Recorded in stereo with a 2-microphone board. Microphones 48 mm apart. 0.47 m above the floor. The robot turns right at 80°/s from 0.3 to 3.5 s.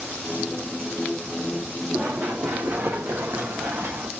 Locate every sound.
1.9 s running footsteps: 35° right (ahead or behind), 1.0 m; by 4.1 s 55° right (ahead or behind), 1.7 m